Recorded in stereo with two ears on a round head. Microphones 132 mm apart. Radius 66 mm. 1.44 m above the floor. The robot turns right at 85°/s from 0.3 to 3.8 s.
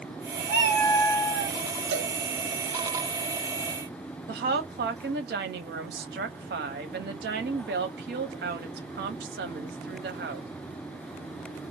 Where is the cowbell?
75° right (ahead or behind), 1.2 m; by 2.1 s 60° right (ahead or behind), 1.2 m.